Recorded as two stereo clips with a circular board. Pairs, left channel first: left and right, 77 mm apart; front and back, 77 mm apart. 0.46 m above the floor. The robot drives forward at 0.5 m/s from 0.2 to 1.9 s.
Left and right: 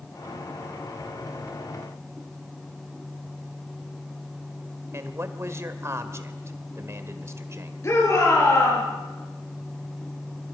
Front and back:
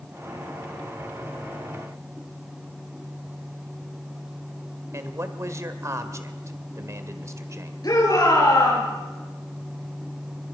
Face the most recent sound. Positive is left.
turn(degrees=40)